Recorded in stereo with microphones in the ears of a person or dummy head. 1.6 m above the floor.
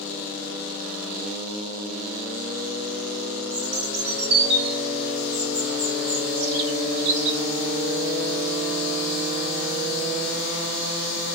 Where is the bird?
60° right (ahead or behind), 1.7 m.